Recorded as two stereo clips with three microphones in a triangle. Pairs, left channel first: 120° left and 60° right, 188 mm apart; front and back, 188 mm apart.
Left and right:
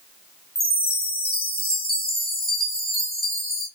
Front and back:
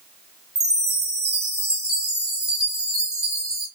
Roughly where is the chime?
Behind left.